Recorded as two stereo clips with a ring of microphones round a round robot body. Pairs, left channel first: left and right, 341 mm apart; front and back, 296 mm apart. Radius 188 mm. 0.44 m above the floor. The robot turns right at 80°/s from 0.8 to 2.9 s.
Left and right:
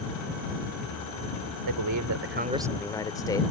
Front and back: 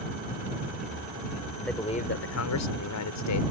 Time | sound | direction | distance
1.7 | a man speaking | 90° right | ?